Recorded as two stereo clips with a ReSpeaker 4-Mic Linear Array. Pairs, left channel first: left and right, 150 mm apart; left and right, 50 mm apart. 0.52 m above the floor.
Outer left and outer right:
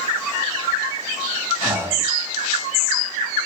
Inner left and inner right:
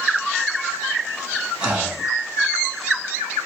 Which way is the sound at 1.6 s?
15° right (ahead or behind).